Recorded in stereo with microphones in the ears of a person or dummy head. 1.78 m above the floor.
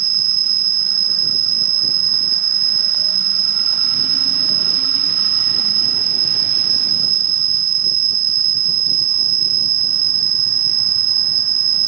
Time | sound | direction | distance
0.0 | an insect | 45° right (ahead or behind) | ?